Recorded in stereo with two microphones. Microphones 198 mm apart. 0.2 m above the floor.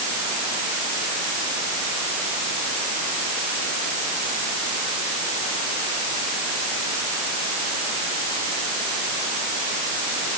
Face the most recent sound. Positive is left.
No sound to turn to.